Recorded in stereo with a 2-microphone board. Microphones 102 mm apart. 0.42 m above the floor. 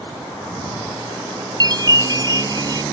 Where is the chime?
45° right (ahead or behind).